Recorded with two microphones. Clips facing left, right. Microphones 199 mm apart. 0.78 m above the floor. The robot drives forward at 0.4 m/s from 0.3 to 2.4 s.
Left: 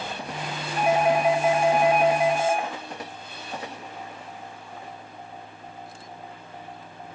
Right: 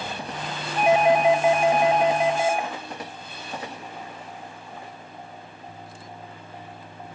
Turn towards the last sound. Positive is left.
turn(degrees=-15)  # may be behind; listen again after turning